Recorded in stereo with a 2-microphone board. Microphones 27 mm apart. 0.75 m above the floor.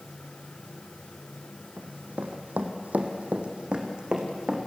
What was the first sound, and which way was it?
Running footsteps, 70° right (ahead or behind).